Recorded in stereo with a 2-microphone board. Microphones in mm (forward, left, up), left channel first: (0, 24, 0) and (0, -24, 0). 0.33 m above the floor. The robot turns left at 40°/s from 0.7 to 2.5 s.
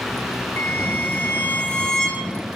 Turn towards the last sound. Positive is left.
turn(degrees=-5)